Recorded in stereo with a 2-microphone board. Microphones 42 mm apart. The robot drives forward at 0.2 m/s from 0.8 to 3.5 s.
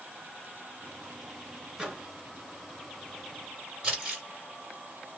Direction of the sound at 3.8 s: 25° right (ahead or behind).